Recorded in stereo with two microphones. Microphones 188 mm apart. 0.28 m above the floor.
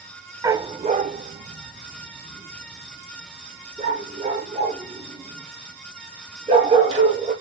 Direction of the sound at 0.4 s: 15° right (ahead or behind).